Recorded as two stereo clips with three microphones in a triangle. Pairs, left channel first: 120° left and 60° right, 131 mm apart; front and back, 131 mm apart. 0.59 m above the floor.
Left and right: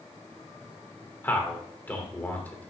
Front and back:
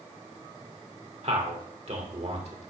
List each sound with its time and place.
1.2 s a man speaking: 165° right, 1.8 m